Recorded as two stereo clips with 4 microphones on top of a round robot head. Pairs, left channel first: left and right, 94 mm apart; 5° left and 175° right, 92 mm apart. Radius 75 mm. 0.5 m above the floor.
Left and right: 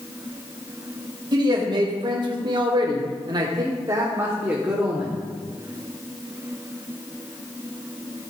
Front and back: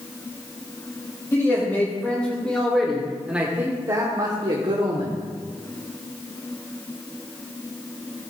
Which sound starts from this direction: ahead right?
A man speaking, at 1.3 s.